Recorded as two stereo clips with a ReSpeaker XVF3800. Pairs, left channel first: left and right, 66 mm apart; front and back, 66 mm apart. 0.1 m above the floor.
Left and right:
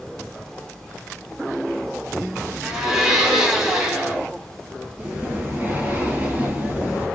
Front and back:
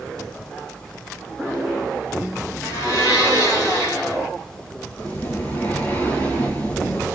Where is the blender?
10° right, 0.9 m.